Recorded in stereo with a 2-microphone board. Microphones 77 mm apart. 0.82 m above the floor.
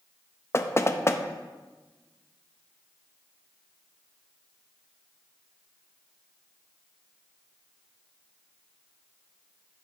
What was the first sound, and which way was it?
Knocking, 35° left (ahead or behind).